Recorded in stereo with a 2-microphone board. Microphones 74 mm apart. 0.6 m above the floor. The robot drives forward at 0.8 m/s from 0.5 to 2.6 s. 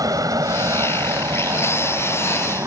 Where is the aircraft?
55° right (ahead or behind); by 2.7 s 45° right (ahead or behind).